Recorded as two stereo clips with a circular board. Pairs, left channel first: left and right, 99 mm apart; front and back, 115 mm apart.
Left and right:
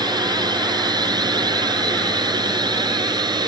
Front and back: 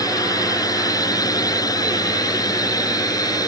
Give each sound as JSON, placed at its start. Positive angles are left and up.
{"t": 0.0, "sound": "a drone", "azimuth_deg": -55}